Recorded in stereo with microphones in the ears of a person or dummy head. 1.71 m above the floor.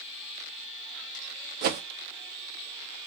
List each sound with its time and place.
1.6 s a whoosh: 55° right (ahead or behind), 0.7 m